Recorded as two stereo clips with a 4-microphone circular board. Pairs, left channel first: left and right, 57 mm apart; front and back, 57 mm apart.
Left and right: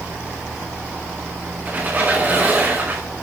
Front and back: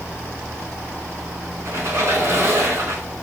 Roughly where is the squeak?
Behind right.